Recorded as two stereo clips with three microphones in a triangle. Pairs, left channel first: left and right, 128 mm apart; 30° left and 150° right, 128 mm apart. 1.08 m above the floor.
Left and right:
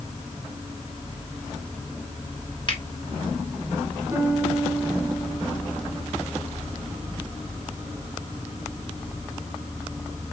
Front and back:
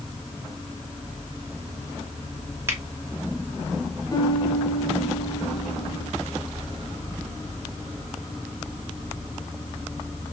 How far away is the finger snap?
About 1.8 m.